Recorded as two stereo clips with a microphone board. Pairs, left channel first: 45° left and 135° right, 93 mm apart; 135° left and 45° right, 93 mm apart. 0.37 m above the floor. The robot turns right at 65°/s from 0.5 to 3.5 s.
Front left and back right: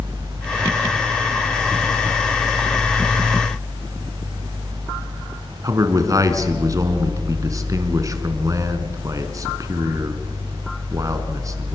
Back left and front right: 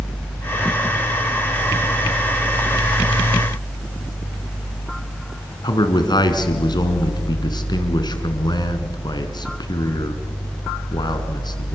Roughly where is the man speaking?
Behind.